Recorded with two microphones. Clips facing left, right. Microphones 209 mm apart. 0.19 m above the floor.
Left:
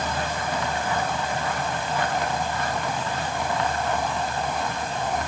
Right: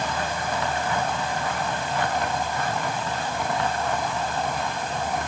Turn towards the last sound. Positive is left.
No sound to turn to.